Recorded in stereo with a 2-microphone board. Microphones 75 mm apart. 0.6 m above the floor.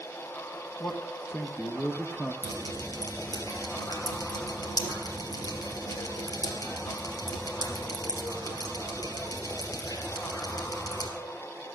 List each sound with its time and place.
0.8 s a man speaking: 25° left (ahead or behind), 1.3 m
2.4 s dripping: 55° left (ahead or behind), 3.5 m